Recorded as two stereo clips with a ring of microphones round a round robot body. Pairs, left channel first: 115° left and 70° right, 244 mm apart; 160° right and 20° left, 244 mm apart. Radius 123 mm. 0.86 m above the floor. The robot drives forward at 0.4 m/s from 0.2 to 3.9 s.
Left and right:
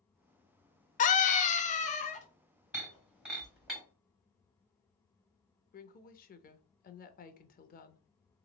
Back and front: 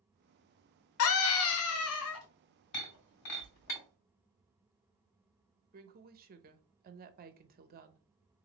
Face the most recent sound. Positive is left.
turn(degrees=65)